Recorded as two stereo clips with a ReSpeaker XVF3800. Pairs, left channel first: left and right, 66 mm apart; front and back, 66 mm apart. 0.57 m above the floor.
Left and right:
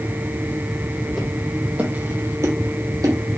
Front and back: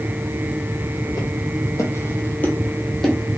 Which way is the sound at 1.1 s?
Straight ahead.